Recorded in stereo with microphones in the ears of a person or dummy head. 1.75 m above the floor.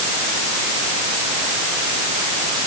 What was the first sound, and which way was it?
Only background noise.